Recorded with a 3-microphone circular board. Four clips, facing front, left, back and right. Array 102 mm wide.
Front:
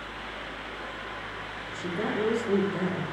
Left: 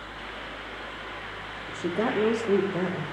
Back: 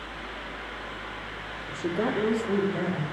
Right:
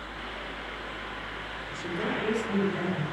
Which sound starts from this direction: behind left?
A woman speaking, at 1.7 s.